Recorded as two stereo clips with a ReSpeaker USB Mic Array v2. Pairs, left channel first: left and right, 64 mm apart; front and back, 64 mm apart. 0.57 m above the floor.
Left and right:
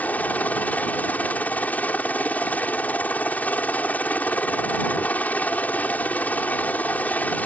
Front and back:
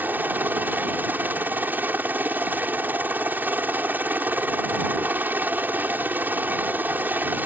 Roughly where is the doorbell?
I don't hear a doorbell.